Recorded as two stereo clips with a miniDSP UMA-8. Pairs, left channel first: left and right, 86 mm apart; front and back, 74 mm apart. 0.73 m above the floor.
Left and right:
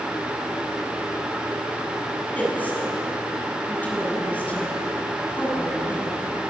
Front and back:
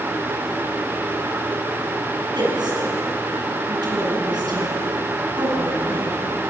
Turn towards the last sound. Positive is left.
turn(degrees=160)